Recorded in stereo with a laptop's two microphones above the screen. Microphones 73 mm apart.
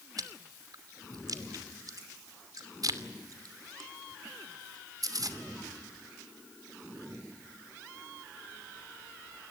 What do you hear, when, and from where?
0.2 s chewing: 60° right (ahead or behind), 2.5 m